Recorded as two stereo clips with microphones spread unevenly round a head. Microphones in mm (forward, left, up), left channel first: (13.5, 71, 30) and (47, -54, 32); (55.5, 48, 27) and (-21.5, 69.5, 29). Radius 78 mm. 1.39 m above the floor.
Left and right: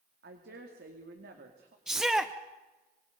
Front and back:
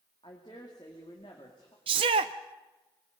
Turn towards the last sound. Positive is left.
turn(degrees=-160)